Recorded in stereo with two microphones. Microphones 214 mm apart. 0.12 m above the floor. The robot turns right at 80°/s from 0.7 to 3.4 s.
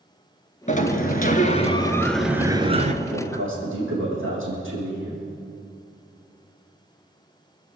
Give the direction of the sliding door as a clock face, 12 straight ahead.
10 o'clock.